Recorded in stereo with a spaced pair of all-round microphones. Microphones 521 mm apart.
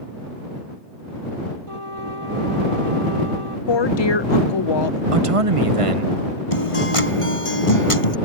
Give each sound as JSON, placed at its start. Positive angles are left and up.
{"t": 1.7, "sound": "a trumpet", "side_deg": -75}
{"t": 3.7, "sound": "a woman speaking", "side_deg": 55}
{"t": 5.1, "sound": "a man speaking", "side_deg": -85}
{"t": 6.5, "sound": "a guitar", "side_deg": 80}